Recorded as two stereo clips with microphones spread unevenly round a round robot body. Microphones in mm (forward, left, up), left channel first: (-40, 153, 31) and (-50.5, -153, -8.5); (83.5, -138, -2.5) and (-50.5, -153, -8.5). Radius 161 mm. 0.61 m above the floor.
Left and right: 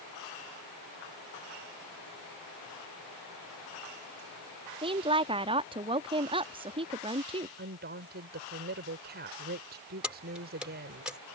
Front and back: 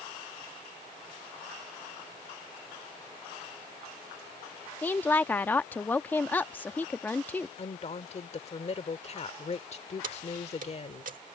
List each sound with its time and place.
4.8 s a woman speaking: 60° right
7.6 s a woman speaking: 35° right
10.0 s keys jangling: 175° right